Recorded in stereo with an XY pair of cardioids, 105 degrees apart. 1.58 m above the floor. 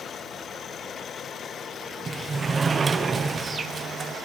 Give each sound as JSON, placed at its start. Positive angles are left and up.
{"t": 2.1, "sound": "a sliding door", "azimuth_deg": -35, "distance_m": 0.5}